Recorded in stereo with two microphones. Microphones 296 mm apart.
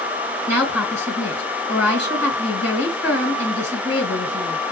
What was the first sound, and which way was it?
A woman speaking, 50° left (ahead or behind).